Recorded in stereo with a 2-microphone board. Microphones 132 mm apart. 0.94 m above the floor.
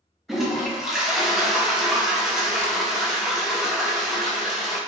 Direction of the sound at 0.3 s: Centre (ahead or behind).